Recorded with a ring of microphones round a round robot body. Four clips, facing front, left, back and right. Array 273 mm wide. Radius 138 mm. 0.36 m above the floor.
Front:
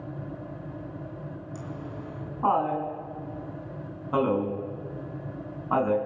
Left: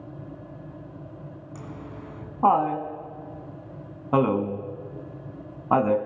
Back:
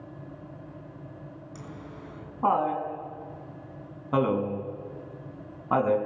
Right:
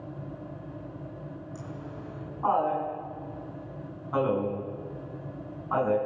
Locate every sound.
1.6 s laughter: 100° left, 4 m